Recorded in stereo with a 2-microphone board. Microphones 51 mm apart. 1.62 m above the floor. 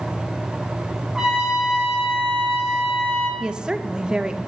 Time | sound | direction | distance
1.1 | a trumpet | 15° right (ahead or behind) | 2.5 m
3.4 | a woman speaking | 15° right (ahead or behind) | 0.8 m